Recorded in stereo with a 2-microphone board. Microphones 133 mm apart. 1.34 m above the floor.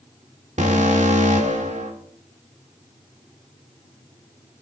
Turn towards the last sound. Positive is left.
turn(degrees=-65)  # may be behind; listen again after turning